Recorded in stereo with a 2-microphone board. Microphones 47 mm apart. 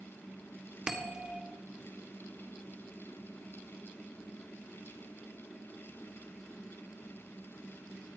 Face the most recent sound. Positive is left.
turn(degrees=-15)  # may be behind; listen again after turning